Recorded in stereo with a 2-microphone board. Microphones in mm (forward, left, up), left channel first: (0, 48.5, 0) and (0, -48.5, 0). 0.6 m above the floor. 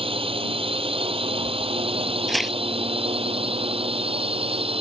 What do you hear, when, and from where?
0.0 s a drone: 70° right (ahead or behind); by 4.8 s 75° right (ahead or behind)
2.3 s tearing paper: centre (ahead or behind)